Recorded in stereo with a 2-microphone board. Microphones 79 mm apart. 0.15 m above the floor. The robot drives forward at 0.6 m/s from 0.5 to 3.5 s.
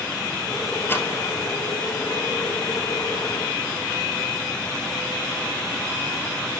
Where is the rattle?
25° left (ahead or behind), 1.9 m; by 1.1 s 30° left (ahead or behind), 1.8 m.